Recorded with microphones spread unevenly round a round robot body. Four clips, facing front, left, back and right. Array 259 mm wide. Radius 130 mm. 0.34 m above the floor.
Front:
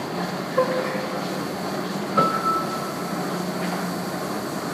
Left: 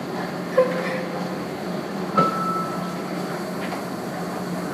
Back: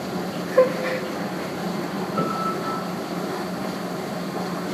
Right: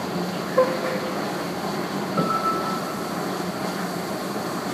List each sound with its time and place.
0.5 s a gasp: 150° left, 1.2 m
2.1 s a piano: 55° left, 9 m